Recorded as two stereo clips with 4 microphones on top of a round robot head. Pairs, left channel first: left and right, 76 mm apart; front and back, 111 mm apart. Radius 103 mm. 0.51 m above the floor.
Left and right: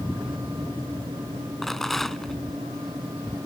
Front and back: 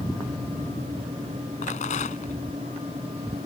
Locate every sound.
1.6 s a rattle: 5° left